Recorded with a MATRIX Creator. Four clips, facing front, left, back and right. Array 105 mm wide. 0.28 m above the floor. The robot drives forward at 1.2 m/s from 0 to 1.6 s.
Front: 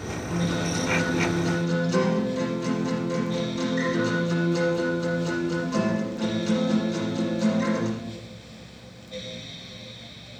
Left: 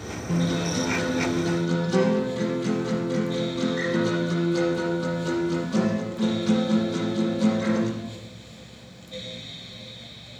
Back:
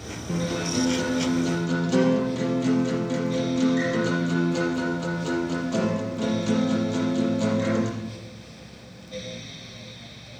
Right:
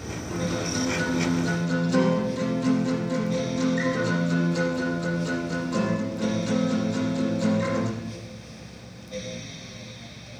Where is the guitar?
130° left, 3.5 m; by 7.9 s 145° left, 5 m.